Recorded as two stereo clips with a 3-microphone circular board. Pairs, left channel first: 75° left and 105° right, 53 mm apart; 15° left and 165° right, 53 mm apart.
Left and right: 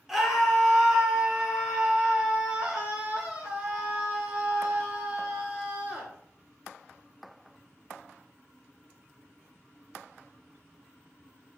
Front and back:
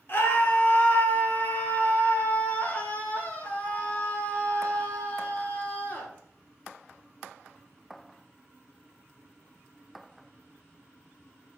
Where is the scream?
20° right, 3 m; by 6.1 s 45° right, 6 m.